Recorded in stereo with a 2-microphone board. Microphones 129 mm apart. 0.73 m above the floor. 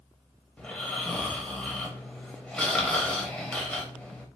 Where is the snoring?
10° left (ahead or behind), 0.8 m.